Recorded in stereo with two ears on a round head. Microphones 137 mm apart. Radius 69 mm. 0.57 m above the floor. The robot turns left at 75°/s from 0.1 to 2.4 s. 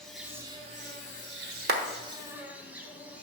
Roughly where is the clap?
Right.